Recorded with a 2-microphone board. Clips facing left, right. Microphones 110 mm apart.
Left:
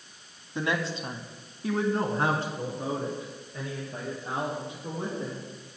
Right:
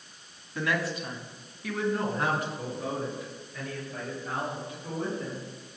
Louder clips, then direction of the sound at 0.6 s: Even; 20° left (ahead or behind).